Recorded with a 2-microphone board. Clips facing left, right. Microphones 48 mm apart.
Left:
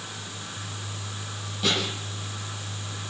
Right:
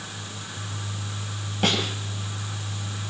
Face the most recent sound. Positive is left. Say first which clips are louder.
# right 2 dB
turn(degrees=-50)  # may be behind; listen again after turning